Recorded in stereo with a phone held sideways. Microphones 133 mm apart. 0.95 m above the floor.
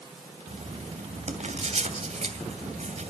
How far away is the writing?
About 2.5 m.